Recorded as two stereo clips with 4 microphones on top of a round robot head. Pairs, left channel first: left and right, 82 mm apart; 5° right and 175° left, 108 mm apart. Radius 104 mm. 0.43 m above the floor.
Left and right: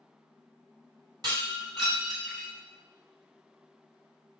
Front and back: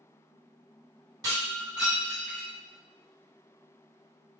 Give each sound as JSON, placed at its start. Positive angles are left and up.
{"t": 1.2, "sound": "breaking glass", "azimuth_deg": -125, "distance_m": 3.0}